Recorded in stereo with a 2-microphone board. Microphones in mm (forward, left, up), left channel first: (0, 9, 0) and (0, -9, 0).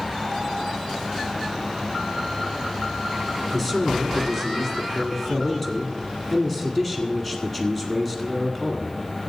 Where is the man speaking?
15° left (ahead or behind), 1.8 m.